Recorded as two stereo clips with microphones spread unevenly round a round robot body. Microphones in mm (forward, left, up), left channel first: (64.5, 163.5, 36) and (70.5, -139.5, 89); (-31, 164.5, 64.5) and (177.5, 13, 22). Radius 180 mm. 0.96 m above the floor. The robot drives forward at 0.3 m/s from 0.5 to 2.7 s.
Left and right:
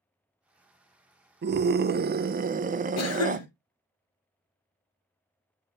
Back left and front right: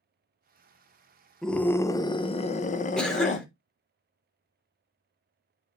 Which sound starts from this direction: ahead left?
A cough, at 3.0 s.